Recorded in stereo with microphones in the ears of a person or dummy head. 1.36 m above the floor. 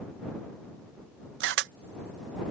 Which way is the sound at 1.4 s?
65° right (ahead or behind).